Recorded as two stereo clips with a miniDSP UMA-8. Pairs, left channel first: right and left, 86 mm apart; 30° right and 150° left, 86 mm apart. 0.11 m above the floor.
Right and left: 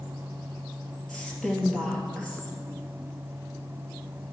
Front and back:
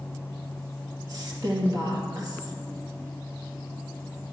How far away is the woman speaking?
About 2.5 m.